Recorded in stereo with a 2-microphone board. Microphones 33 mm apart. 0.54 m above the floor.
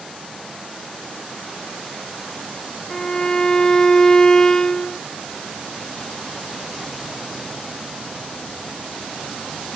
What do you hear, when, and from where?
2.9 s a violin: 20° left (ahead or behind)